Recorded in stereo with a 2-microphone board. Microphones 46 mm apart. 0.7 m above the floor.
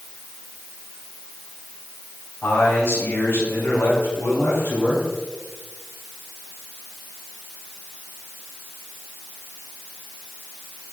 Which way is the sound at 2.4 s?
80° left.